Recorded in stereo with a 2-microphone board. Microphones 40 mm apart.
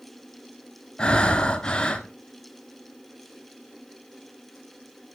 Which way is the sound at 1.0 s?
20° left (ahead or behind).